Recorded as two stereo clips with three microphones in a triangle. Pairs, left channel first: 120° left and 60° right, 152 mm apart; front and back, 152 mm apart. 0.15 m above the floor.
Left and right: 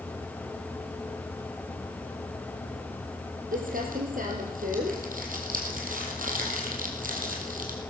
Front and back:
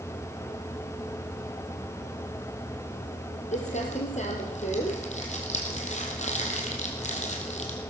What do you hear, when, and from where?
3.5 s crumpling: 40° right, 3 m